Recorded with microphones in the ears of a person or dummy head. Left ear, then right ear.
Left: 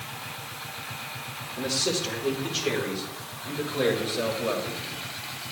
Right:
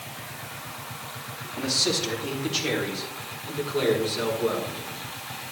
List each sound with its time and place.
1.6 s a man speaking: 85° right, 2.5 m; by 5.1 s 65° right (ahead or behind), 4.5 m